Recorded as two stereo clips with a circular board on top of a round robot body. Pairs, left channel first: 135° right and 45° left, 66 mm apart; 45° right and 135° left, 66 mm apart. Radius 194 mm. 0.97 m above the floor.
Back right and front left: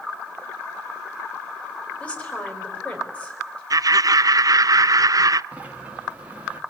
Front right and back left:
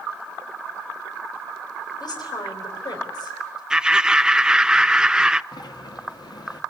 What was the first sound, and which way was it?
A woman speaking, 65° right.